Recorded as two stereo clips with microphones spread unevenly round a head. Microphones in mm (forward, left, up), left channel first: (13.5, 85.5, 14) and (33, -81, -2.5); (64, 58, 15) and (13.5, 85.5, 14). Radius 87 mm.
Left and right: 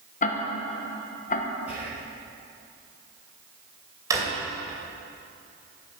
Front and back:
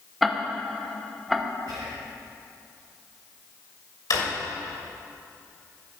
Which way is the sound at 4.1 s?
10° right.